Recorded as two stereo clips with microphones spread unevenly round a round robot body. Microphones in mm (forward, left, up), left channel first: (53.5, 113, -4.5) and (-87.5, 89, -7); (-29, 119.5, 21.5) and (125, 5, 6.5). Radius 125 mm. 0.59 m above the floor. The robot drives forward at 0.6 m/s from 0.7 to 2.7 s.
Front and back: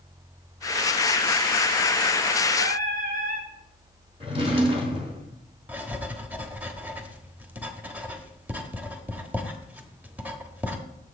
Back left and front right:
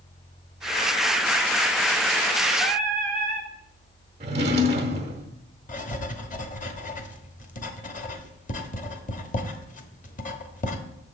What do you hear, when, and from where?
2.6 s singing: 130° right, 0.8 m; by 3.5 s 135° right, 0.8 m
4.2 s a drawer: 100° right, 0.6 m
5.7 s writing: 120° left, 1.0 m